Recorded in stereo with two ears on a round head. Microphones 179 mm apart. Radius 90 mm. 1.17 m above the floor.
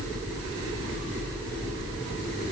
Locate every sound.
Only background noise.